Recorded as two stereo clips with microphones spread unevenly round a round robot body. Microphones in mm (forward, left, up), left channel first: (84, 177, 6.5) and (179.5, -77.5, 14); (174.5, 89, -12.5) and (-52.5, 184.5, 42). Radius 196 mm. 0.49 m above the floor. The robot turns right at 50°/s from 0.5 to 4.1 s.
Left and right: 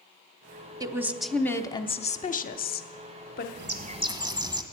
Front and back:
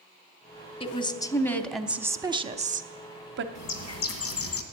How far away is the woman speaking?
About 0.9 m.